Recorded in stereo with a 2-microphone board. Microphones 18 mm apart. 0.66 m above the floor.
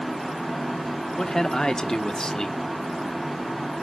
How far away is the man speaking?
About 1.4 m.